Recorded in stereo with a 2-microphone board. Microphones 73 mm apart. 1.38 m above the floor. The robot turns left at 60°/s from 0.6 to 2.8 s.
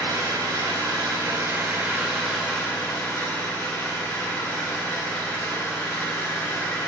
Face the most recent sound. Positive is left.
turn(degrees=155)